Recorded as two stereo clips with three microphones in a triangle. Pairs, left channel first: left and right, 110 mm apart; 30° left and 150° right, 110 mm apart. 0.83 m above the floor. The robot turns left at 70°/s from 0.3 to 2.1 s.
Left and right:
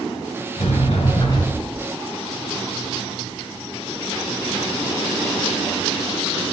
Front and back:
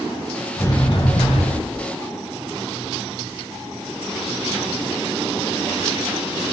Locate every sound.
0.6 s a sliding door: 95° left, 3 m; by 1.8 s 10° left, 3 m